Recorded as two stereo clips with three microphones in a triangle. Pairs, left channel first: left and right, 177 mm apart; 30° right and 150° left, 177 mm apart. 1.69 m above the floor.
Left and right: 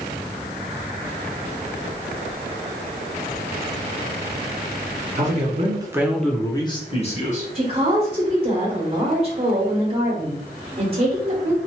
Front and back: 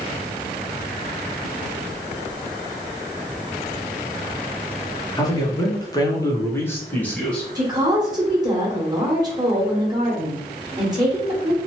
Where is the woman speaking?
140° right, 1.0 m.